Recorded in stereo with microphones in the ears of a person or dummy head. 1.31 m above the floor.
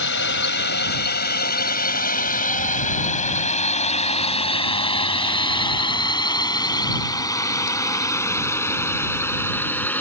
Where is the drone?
70° left (ahead or behind); by 10.0 s 15° left (ahead or behind).